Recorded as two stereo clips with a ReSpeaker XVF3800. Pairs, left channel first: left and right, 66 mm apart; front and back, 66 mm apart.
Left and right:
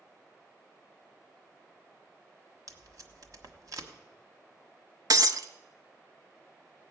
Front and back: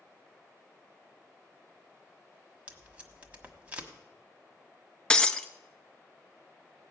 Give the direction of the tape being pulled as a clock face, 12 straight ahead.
4 o'clock.